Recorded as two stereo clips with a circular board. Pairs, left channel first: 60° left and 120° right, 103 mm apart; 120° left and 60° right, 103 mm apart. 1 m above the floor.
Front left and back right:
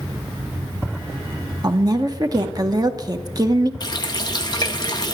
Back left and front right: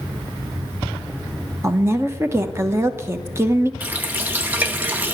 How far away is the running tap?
About 0.7 m.